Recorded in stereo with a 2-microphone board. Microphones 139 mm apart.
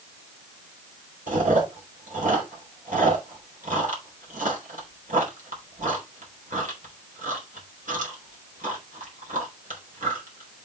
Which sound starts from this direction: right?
Chewing, at 1.3 s.